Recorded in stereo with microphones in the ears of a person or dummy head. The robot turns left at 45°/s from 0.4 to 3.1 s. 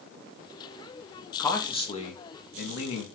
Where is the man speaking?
175° left, 0.8 m; by 3.0 s 100° left, 0.8 m.